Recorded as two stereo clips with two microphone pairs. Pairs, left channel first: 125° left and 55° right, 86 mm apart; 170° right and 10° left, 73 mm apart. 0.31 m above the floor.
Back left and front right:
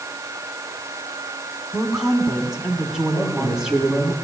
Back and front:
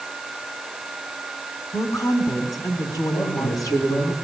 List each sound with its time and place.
1.7 s a woman speaking: 135° right, 3 m
3.1 s a man speaking: 160° right, 8.5 m